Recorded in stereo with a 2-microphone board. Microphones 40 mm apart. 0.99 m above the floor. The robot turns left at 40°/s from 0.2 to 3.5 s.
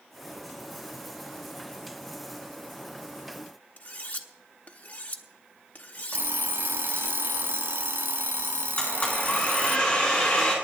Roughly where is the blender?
Left.